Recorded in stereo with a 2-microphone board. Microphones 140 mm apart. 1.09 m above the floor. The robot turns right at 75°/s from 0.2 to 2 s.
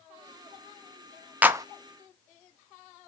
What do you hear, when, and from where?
1.4 s a clap: 10° right (ahead or behind), 0.7 m; by 1.6 s 30° right (ahead or behind), 0.7 m